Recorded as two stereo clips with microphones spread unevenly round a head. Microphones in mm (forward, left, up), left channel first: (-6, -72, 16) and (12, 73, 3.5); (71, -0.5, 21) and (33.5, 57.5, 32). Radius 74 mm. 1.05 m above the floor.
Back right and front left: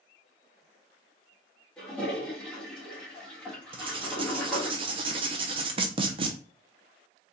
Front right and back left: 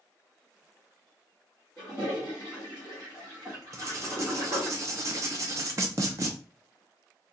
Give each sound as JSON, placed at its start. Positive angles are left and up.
{"t": 1.8, "sound": "a toilet flushing", "azimuth_deg": 180, "distance_m": 1.4}
{"t": 3.7, "sound": "writing", "azimuth_deg": 130, "distance_m": 0.5}